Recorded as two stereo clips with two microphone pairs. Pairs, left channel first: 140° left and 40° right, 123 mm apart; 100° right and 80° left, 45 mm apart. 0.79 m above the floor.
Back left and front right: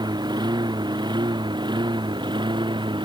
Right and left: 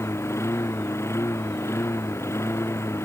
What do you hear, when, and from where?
0.0 s a lawn mower: 90° right